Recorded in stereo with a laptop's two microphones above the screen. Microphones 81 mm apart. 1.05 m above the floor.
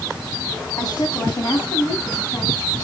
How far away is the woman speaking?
About 7.5 m.